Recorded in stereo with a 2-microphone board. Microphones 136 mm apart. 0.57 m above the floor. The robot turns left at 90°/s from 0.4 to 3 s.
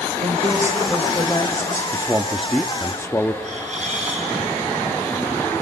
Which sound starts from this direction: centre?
A man speaking, at 1.9 s.